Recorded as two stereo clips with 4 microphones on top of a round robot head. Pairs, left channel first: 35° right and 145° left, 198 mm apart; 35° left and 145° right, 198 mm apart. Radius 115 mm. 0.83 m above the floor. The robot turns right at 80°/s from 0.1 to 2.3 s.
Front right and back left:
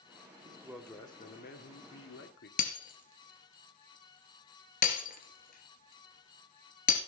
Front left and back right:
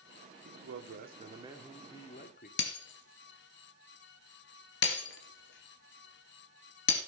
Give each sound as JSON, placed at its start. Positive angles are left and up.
{"t": 0.5, "sound": "a man speaking", "azimuth_deg": -155, "distance_m": 2.0}
{"t": 2.6, "sound": "breaking glass", "azimuth_deg": 10, "distance_m": 2.5}